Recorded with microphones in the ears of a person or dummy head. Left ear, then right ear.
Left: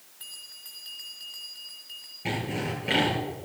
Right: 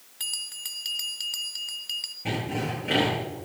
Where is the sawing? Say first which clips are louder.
Left 2 dB; 25° left (ahead or behind), 8 m.